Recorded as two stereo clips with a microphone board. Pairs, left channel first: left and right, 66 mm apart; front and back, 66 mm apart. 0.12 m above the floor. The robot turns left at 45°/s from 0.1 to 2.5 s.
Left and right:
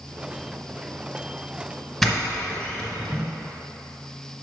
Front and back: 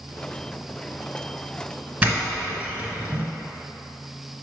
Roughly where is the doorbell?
Behind.